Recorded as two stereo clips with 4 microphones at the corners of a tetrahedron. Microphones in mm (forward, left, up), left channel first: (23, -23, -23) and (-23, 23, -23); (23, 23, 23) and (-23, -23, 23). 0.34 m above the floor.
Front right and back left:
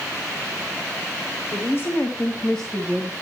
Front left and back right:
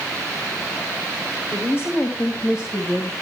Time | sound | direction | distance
1.5 | a woman speaking | 10° right | 2 m